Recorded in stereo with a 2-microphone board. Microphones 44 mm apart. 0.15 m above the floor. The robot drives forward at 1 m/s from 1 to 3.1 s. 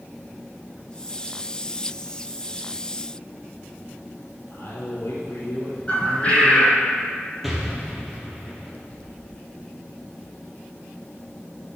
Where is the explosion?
5° right (ahead or behind), 1.9 m.